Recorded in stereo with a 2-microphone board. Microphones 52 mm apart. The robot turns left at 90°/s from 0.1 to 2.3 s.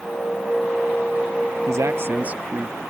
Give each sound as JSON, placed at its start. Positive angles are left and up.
{"t": 1.7, "sound": "a man speaking", "azimuth_deg": -90}